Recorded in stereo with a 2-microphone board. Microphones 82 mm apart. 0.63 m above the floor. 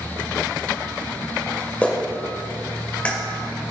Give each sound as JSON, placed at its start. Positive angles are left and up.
{"t": 1.8, "sound": "a clap", "side_deg": 15, "distance_m": 1.6}